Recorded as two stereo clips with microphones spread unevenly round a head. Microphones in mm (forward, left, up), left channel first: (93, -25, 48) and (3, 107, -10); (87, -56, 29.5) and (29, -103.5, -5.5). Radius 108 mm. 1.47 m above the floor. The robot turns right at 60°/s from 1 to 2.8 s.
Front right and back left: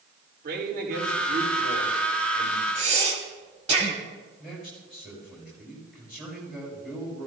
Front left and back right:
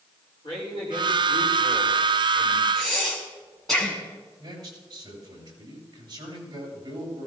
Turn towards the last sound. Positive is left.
turn(degrees=-145)